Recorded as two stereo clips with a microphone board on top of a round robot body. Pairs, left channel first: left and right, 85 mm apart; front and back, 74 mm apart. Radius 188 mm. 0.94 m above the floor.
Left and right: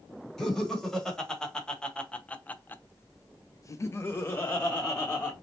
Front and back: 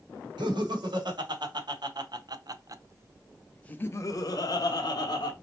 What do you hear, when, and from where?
0.4 s laughter: 175° left, 1.6 m; by 5.3 s 15° left, 1.1 m